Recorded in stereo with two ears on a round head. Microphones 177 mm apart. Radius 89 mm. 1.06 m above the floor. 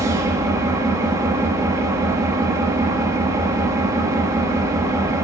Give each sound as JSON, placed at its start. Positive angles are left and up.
{"t": 0.0, "sound": "an engine running", "side_deg": -15, "distance_m": 1.1}